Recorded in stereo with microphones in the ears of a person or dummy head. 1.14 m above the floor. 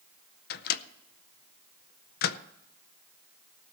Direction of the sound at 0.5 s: 55° left (ahead or behind).